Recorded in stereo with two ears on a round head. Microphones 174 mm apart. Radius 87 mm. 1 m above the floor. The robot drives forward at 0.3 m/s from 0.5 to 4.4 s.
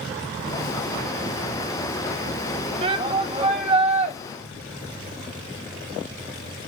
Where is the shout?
25° right (ahead or behind), 1.2 m; by 4.2 s 35° right (ahead or behind), 1.0 m.